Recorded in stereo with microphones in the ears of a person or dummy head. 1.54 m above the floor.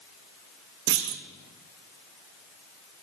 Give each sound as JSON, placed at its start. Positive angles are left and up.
{"t": 0.9, "sound": "a clunk", "side_deg": -50, "distance_m": 0.7}